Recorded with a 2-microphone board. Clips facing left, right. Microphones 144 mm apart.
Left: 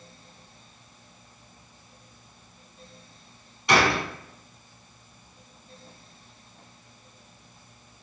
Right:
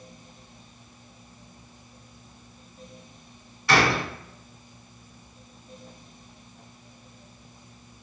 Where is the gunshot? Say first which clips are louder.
Even; 20° left (ahead or behind), 0.8 m.